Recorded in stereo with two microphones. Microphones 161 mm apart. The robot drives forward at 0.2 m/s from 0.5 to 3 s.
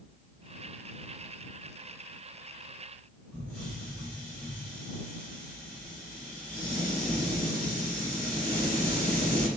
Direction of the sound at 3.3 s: 10° left (ahead or behind).